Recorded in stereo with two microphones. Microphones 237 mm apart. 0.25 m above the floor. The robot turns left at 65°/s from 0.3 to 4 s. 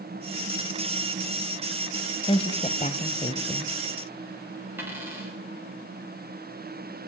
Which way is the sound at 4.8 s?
10° right (ahead or behind).